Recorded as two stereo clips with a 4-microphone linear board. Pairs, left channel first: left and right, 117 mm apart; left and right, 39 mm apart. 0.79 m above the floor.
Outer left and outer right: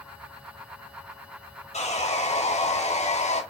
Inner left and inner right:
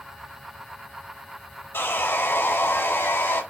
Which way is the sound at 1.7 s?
70° left (ahead or behind).